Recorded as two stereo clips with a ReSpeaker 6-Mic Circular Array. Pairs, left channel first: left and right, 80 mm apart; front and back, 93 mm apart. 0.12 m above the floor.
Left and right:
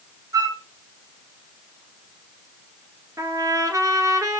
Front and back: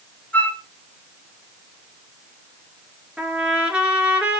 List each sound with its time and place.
0.3 s a flute: 70° right, 2 m
3.2 s a trumpet: 105° right, 2 m